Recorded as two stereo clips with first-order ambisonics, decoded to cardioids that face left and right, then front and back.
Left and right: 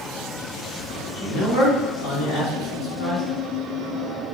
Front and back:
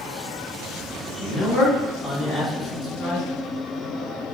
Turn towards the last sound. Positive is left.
turn(degrees=75)